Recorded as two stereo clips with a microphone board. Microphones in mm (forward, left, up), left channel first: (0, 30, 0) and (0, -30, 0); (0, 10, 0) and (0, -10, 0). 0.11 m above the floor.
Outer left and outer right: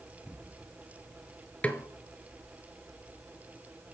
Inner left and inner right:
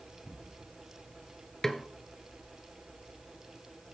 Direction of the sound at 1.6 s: 25° left (ahead or behind).